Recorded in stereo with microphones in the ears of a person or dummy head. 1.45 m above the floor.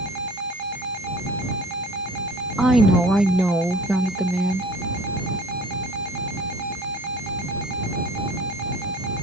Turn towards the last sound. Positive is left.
turn(degrees=-5)  # may be behind; listen again after turning